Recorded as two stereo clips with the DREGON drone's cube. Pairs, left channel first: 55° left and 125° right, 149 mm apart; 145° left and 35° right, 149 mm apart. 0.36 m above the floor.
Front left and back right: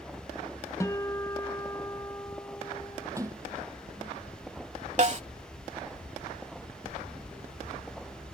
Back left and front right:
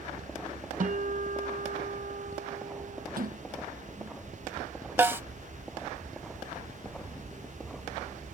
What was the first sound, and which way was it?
A guitar, 15° right.